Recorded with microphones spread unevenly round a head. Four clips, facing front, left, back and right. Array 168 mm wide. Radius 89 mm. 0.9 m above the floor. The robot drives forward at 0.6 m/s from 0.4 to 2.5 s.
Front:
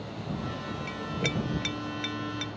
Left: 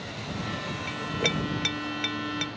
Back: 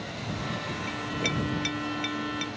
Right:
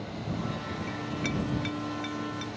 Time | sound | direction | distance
0.9 | a clink | 75° left | ?